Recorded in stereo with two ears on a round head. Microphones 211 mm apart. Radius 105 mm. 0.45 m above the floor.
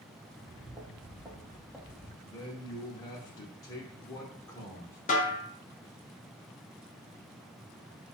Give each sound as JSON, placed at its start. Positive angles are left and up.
{"t": 0.3, "sound": "footsteps", "side_deg": -25, "distance_m": 1.6}
{"t": 2.2, "sound": "a man speaking", "side_deg": 15, "distance_m": 0.7}
{"t": 5.1, "sound": "a snare drum", "side_deg": 35, "distance_m": 1.1}